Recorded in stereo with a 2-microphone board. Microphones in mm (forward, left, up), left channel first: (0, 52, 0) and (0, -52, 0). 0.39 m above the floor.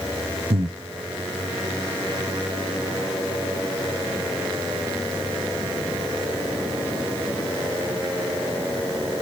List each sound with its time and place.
0.5 s breathing: 70° right (ahead or behind), 1.2 m